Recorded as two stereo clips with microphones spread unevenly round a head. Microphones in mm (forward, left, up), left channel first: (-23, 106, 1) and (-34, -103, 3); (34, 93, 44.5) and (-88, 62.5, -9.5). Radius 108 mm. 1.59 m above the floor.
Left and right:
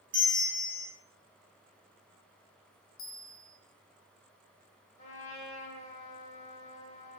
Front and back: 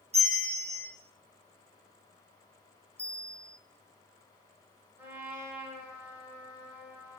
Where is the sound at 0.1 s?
100° right, 1.3 m.